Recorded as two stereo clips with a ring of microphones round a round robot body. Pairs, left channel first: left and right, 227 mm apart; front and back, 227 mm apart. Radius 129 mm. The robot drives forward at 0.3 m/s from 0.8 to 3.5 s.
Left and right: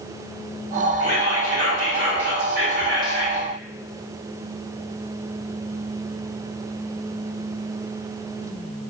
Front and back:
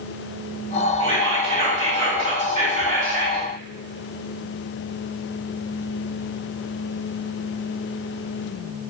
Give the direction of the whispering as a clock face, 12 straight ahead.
4 o'clock.